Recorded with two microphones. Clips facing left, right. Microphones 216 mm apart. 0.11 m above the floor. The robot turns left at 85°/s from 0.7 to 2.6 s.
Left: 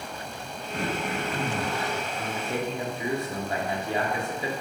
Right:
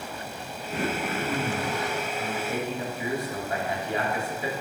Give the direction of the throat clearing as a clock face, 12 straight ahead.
2 o'clock.